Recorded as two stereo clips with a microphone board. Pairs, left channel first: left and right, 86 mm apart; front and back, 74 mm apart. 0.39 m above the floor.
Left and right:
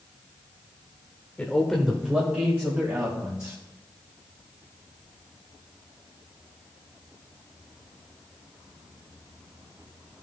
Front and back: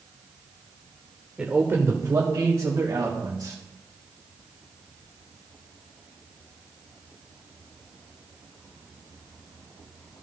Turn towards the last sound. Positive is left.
turn(degrees=-150)